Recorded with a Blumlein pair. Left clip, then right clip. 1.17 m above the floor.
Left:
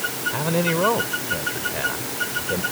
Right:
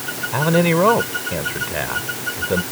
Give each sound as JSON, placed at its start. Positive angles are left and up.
{"t": 0.3, "sound": "a man speaking", "azimuth_deg": -15}